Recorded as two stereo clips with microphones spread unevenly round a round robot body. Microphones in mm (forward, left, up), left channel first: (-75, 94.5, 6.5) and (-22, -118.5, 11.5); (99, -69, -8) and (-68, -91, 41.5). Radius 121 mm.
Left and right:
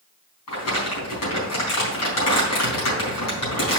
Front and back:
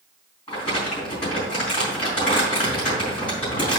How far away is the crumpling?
About 3.5 m.